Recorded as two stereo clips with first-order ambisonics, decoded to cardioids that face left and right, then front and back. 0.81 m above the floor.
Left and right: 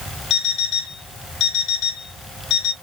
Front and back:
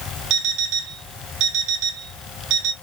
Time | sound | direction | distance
0.3 | an alarm clock | 140° left | 0.9 m